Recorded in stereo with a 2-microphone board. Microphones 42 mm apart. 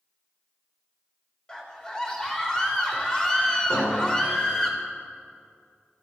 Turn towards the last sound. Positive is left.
turn(degrees=85)